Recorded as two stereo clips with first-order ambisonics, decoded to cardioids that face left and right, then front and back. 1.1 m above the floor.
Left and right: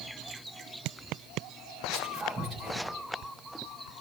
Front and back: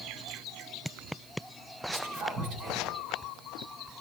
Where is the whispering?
155° right, 6 m.